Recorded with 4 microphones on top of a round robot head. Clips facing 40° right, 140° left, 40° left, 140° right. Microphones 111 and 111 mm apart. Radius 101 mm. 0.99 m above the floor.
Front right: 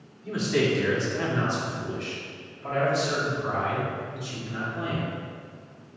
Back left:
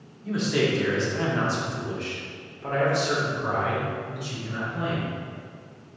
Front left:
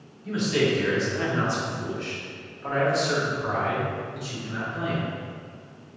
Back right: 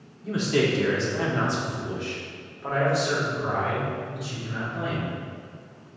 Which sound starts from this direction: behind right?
A man speaking, at 0.2 s.